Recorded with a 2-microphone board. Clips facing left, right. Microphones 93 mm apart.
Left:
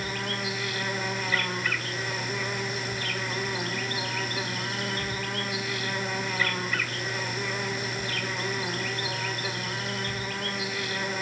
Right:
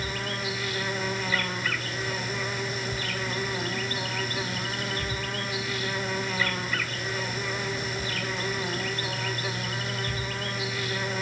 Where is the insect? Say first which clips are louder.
Even; centre (ahead or behind), 1.9 m.